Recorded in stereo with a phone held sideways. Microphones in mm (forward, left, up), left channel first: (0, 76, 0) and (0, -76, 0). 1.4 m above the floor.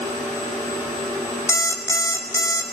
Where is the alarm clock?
20° left (ahead or behind), 2.5 m.